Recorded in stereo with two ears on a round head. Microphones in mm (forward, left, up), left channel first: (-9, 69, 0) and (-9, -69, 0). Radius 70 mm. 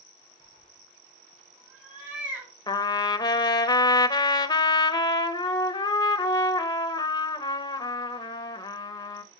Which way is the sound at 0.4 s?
10° right (ahead or behind).